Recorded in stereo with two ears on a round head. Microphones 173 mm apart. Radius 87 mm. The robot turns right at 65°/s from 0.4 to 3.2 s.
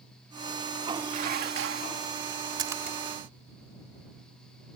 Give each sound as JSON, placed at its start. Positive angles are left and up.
{"t": 1.1, "sound": "dishes clattering", "azimuth_deg": -140}
{"t": 2.6, "sound": "a splash", "side_deg": -25}